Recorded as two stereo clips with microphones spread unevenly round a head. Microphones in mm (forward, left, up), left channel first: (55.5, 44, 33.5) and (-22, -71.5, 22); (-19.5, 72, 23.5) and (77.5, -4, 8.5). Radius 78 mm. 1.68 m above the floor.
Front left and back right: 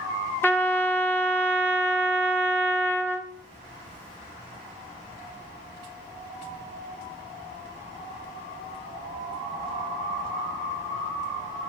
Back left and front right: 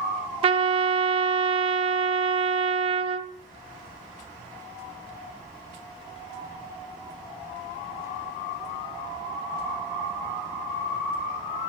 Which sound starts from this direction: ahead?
A trumpet, at 0.4 s.